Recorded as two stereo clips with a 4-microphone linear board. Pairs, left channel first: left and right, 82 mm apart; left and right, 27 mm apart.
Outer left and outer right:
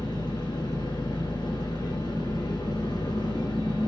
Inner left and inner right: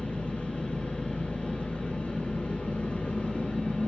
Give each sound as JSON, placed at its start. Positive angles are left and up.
{"t": 0.0, "sound": "an engine running", "side_deg": 75, "distance_m": 8.0}